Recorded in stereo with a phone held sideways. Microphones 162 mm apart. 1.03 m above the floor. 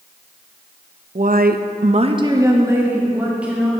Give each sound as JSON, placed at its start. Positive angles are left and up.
{"t": 1.1, "sound": "a woman speaking", "side_deg": -55, "distance_m": 0.7}